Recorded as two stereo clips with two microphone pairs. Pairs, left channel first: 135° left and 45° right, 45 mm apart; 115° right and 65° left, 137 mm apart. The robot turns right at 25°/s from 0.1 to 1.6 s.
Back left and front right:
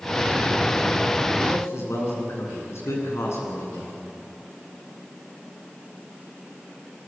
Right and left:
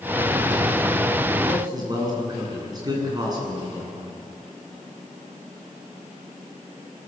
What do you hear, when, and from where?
1.5 s a man speaking: 125° left, 8.5 m; by 3.9 s 130° left, 8.5 m